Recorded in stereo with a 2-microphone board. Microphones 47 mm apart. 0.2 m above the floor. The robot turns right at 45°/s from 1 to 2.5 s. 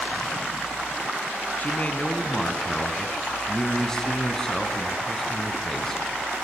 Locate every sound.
1.6 s a man speaking: 120° left, 2.5 m; by 6.0 s 165° left, 2.5 m